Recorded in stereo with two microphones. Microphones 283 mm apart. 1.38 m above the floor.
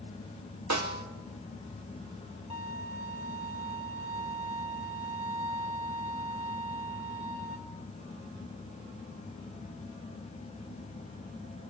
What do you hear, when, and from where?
0.7 s a snare drum: 75° right (ahead or behind), 0.7 m
2.5 s a violin: 20° right (ahead or behind), 1.1 m